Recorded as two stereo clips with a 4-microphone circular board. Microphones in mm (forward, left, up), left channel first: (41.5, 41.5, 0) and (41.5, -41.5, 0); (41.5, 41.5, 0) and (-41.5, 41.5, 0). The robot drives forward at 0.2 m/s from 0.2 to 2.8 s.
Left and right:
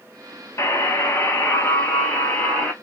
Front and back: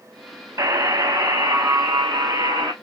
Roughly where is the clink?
I don't hear a clink.